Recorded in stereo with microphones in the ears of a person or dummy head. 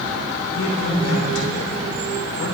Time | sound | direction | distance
0.5 | a man speaking | 85° left | 4 m